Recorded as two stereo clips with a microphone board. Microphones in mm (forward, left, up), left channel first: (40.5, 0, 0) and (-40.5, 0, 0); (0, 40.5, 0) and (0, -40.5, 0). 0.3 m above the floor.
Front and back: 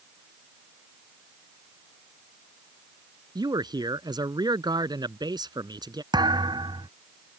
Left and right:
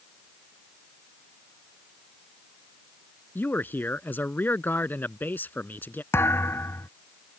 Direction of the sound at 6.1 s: 150° left.